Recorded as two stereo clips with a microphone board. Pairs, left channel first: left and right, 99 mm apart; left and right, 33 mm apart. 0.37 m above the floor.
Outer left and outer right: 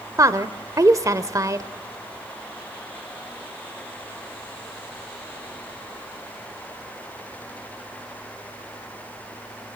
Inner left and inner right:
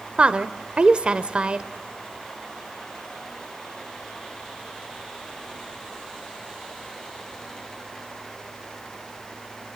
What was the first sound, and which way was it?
A woman speaking, 35° right (ahead or behind).